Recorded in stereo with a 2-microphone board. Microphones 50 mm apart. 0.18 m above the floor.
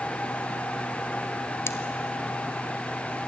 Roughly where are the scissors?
Left.